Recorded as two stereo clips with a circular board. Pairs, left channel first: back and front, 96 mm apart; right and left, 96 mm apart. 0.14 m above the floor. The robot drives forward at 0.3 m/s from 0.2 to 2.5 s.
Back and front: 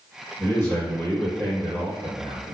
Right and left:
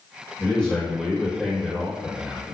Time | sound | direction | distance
0.4 | a man speaking | 155° right | 1.5 m